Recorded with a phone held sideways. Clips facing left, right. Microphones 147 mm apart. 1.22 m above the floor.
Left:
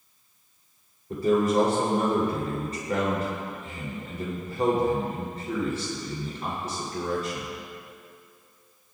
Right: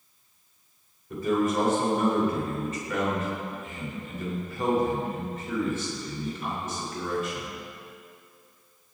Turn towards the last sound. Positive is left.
turn(degrees=35)  # may be behind; listen again after turning